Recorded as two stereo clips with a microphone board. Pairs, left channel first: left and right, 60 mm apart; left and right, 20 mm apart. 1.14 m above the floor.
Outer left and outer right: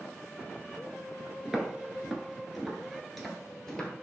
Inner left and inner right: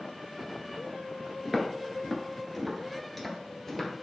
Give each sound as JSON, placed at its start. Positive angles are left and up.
{"t": 1.4, "sound": "footsteps", "side_deg": -5, "distance_m": 1.1}